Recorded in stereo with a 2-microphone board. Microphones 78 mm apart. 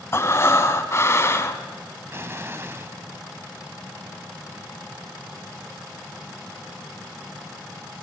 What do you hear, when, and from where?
0.1 s breathing: 35° left (ahead or behind), 1.5 m
2.1 s an explosion: 35° right (ahead or behind), 1.1 m